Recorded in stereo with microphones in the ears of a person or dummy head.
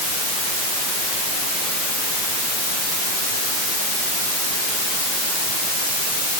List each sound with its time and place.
Only background noise.